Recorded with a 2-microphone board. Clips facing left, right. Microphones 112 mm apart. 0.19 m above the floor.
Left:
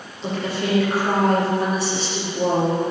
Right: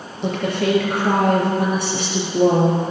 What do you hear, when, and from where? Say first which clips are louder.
0.2 s a woman speaking: right 4 dB; 55° right (ahead or behind), 4.5 m